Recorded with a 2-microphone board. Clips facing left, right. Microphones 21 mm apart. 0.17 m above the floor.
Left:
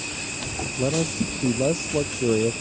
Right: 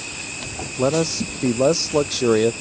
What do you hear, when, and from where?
0.8 s a man speaking: 80° right